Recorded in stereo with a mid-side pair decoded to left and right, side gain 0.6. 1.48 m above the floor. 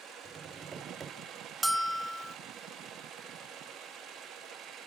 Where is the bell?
10° right, 0.7 m.